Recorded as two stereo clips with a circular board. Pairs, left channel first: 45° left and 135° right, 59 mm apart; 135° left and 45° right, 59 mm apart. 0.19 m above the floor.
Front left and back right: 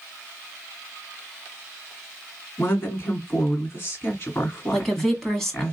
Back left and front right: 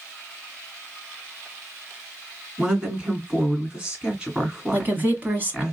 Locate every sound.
2.6 s a woman speaking: 20° left, 1.7 m
4.7 s a woman speaking: 30° right, 1.3 m